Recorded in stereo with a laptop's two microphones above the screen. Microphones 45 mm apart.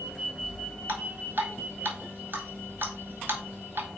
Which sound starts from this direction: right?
Dripping, at 0.9 s.